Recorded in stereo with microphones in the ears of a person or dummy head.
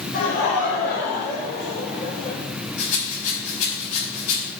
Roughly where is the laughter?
Left.